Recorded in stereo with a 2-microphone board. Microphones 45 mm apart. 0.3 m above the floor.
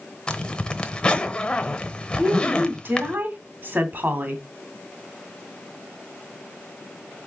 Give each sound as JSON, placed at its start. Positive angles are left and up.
{"t": 0.3, "sound": "a zipper", "side_deg": 20, "distance_m": 0.9}
{"t": 2.2, "sound": "a woman speaking", "side_deg": -45, "distance_m": 2.0}